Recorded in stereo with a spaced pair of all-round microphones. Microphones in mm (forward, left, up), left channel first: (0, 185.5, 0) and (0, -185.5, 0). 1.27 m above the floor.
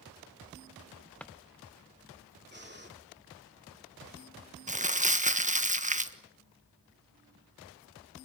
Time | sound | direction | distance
1.2 | a drawer | 5° left (ahead or behind) | 0.8 m
2.5 | breathing | 30° right (ahead or behind) | 2.5 m
4.7 | crumpling | 20° right (ahead or behind) | 1.4 m